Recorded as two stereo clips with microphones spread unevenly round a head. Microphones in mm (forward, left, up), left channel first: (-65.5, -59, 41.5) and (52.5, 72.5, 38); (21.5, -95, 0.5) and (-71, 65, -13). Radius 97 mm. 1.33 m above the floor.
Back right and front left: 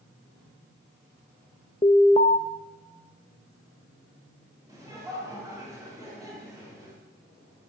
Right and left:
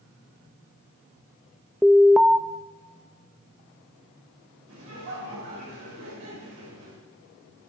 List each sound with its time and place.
1.8 s an alarm: 140° right, 0.5 m
4.7 s laughter: 120° left, 6 m